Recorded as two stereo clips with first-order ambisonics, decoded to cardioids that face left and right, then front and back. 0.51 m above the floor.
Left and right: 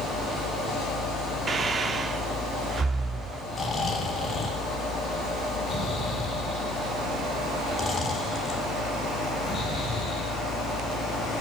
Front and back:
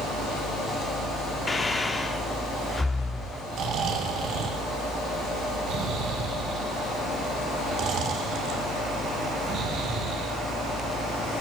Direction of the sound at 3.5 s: 155° left.